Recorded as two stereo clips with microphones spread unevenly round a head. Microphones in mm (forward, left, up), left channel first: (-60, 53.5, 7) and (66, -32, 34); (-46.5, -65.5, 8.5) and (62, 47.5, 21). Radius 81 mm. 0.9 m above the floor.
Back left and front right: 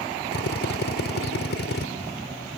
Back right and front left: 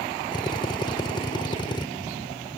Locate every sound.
0.3 s a drill: 160° left